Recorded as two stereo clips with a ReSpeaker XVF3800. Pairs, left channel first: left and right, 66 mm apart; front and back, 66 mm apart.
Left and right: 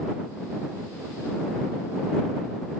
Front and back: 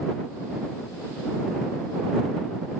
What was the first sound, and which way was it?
Only background noise.